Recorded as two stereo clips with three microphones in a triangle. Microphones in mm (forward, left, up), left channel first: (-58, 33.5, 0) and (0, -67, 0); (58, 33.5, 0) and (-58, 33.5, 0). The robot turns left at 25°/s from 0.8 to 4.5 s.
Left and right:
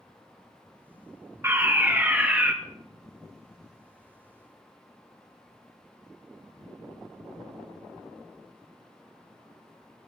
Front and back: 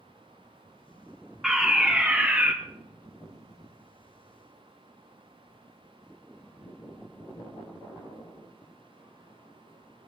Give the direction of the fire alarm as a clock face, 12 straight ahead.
3 o'clock.